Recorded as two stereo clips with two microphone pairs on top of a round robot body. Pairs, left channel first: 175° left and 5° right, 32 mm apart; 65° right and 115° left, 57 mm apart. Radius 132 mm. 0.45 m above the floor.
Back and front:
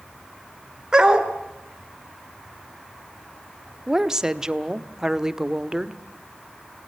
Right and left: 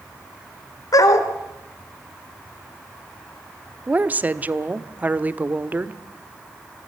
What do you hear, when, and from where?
0.9 s a dog barking: 70° right, 2 m
3.9 s a woman speaking: 65° left, 1.5 m